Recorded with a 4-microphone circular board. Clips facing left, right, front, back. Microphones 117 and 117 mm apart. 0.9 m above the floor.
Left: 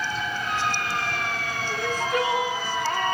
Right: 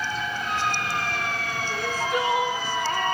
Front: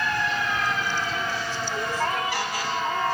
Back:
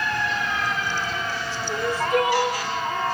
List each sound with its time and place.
1.7 s crying: 175° right, 1.3 m